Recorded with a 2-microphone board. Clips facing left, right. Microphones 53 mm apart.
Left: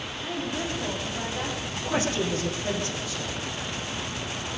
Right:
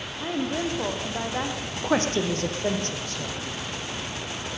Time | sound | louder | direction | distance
0.2 | a woman speaking | right 4 dB | 80° right | 8 m
1.7 | a woman speaking | right 4 dB | 50° right (ahead or behind) | 6.5 m